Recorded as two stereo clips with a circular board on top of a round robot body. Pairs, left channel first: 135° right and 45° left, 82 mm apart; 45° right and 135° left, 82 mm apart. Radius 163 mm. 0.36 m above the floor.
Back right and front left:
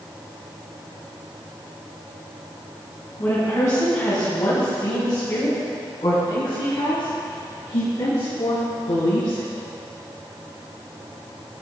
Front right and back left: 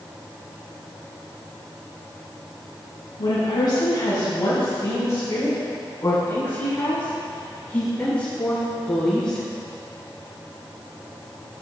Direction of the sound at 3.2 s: 75° right.